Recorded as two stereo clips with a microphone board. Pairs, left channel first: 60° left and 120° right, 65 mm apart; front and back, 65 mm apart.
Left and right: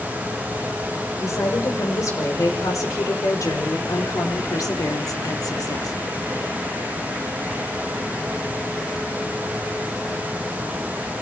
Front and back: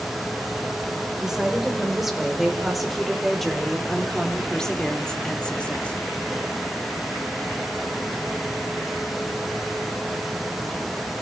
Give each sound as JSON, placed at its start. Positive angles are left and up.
{"t": 1.2, "sound": "a woman speaking", "azimuth_deg": 95, "distance_m": 4.5}